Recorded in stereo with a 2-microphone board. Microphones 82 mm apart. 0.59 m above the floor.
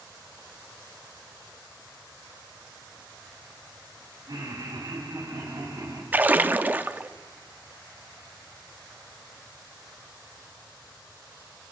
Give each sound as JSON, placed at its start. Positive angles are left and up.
{"t": 4.3, "sound": "laughter", "side_deg": -65, "distance_m": 5.5}
{"t": 6.1, "sound": "a splash", "side_deg": -20, "distance_m": 0.5}